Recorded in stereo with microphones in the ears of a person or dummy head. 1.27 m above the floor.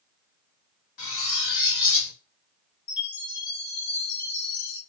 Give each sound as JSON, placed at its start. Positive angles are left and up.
{"t": 1.0, "sound": "cutlery clinking", "side_deg": 60, "distance_m": 1.2}
{"t": 2.9, "sound": "a chime", "side_deg": 75, "distance_m": 1.3}